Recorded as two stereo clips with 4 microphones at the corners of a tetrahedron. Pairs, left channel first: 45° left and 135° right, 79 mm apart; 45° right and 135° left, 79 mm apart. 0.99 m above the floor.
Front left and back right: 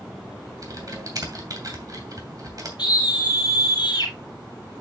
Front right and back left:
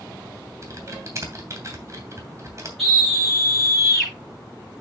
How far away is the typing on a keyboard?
About 2.5 m.